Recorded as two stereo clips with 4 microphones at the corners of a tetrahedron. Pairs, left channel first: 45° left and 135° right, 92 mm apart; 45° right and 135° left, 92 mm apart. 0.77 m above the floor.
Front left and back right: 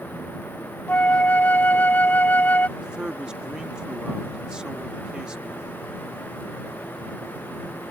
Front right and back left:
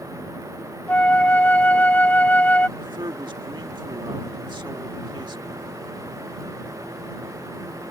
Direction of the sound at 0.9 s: Straight ahead.